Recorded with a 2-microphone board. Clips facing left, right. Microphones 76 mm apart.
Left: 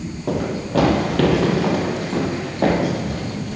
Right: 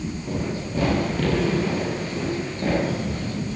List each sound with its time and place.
0.3 s running footsteps: 85° left, 6 m; by 3.6 s 70° left (ahead or behind), 8 m